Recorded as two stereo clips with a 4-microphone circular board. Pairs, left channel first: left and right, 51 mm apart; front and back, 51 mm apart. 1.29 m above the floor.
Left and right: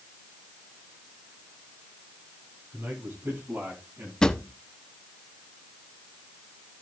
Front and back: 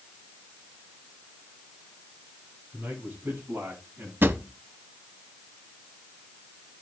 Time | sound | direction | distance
2.7 | a man speaking | 130° right | 8.5 m
4.2 | a drawer | 160° left | 0.9 m